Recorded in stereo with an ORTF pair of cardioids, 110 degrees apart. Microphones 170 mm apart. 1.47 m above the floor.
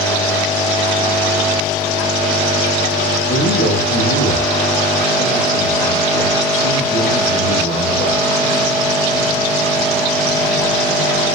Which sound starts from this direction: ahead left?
A man speaking, at 3.3 s.